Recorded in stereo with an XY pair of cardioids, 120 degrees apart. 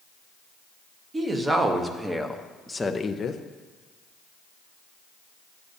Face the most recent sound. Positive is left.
turn(degrees=50)